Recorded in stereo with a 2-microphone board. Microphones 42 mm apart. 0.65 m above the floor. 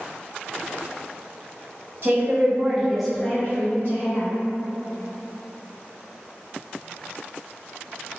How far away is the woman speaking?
About 1.1 m.